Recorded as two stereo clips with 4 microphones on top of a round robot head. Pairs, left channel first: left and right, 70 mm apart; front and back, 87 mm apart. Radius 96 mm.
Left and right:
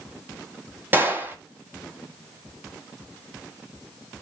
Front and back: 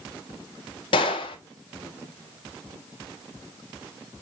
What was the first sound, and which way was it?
A gunshot, 30° right.